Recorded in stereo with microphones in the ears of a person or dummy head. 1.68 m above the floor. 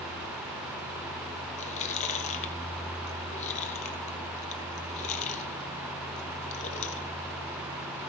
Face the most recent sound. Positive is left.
turn(degrees=45)  # may be behind; listen again after turning